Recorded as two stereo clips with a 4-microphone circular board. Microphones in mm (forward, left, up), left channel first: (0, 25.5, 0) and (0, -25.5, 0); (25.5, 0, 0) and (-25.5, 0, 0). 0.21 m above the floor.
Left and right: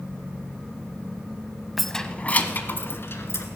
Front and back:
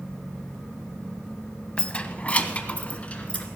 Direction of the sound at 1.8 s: Straight ahead.